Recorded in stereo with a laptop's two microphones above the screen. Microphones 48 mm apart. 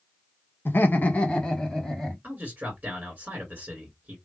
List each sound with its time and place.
0.7 s laughter: 50° left (ahead or behind), 0.8 m; by 2.1 s 5° left (ahead or behind), 2.0 m
2.2 s a man speaking: 30° right (ahead or behind), 2.0 m